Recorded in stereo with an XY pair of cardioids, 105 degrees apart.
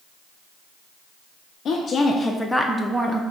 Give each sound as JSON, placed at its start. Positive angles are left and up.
{"t": 1.6, "sound": "a woman speaking", "azimuth_deg": 60, "distance_m": 0.5}